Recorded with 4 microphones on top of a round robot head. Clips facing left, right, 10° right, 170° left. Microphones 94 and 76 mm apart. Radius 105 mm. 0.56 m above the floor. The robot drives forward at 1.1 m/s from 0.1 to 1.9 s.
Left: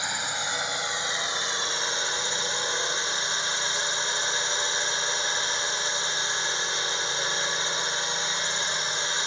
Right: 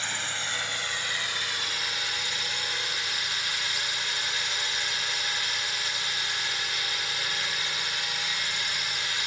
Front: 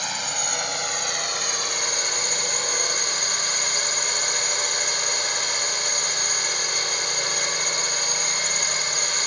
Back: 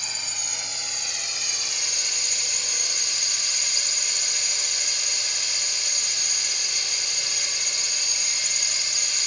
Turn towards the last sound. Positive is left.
turn(degrees=25)